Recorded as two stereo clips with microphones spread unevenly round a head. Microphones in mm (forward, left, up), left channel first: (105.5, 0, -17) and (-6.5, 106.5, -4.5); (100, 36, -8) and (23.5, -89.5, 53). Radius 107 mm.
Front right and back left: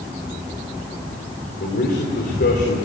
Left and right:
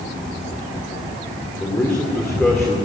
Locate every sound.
1.6 s a man speaking: 20° right, 3 m; by 2.8 s 35° right, 3 m